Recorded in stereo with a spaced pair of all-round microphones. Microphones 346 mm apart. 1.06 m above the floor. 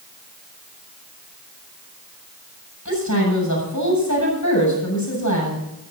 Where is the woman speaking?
50° left (ahead or behind), 8 m.